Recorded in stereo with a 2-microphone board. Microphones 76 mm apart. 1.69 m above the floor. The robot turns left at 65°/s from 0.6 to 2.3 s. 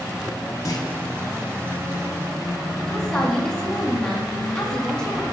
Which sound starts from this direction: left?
A clunk, at 0.7 s.